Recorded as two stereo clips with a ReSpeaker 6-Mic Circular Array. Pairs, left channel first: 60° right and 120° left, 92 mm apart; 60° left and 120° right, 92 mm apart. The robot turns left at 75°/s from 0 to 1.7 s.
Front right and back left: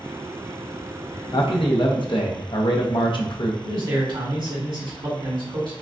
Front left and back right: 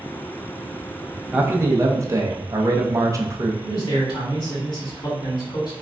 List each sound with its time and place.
1.3 s a man speaking: 45° right, 0.7 m; by 3.5 s 70° right, 0.7 m
3.6 s a man speaking: 90° left, 1.9 m